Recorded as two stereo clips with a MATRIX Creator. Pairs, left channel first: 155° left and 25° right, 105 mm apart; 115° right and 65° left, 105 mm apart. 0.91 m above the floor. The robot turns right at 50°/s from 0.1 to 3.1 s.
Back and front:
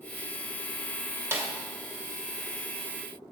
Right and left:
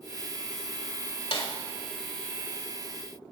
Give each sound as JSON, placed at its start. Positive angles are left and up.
{"t": 1.3, "sound": "a snare drum", "azimuth_deg": -90, "distance_m": 1.7}